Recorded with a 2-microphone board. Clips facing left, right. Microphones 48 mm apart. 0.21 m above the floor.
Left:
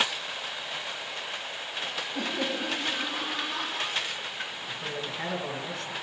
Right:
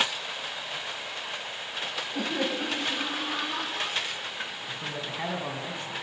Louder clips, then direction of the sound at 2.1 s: Right 2 dB; 55° right (ahead or behind).